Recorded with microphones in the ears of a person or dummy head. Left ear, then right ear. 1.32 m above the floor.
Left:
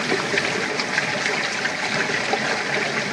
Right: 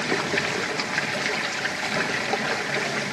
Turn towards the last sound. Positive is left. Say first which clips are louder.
# left 3 dB
turn(degrees=5)  # may be behind; listen again after turning